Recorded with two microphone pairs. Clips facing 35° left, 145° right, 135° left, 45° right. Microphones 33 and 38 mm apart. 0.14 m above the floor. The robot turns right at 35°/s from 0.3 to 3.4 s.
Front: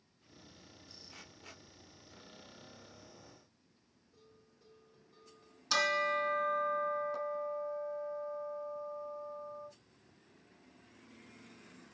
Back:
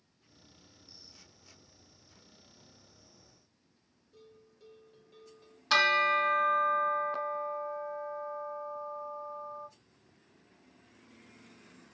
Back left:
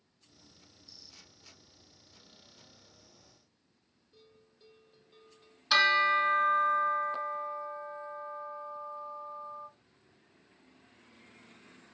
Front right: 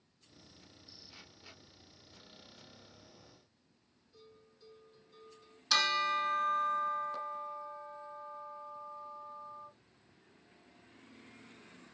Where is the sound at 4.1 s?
165° right, 3.5 m.